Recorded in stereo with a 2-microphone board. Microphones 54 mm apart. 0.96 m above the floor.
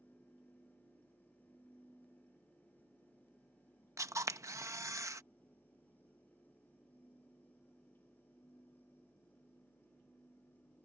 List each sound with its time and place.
4.0 s a camera shutter: 70° right (ahead or behind)